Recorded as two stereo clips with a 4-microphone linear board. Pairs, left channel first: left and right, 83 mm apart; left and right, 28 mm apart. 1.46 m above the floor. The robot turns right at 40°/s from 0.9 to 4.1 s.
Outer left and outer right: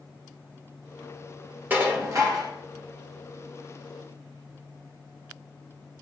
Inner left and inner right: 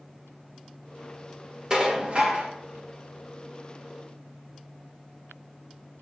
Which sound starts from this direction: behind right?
Dishes clattering, at 1.7 s.